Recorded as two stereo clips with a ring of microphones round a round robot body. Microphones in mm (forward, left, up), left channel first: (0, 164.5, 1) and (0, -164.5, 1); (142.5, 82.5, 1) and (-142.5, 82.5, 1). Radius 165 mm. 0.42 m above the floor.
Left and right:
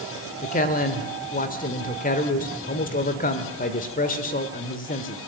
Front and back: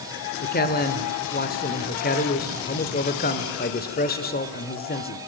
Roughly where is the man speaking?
Ahead left.